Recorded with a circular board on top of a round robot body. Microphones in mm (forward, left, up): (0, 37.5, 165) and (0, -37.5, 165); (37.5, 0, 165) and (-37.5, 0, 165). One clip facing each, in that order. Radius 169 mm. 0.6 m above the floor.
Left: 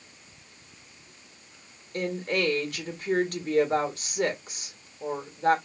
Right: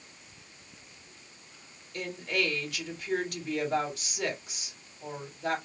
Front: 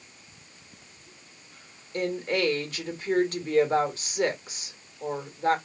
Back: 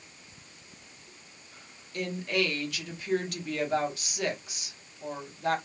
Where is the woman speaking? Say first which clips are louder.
Left 4 dB, front 3 dB; 50° left, 1.6 m.